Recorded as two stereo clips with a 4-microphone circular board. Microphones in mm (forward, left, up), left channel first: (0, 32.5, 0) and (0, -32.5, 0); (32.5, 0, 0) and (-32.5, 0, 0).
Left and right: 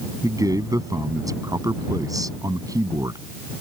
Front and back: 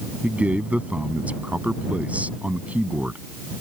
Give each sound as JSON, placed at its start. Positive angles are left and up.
{"t": 0.2, "sound": "a man speaking", "azimuth_deg": -110}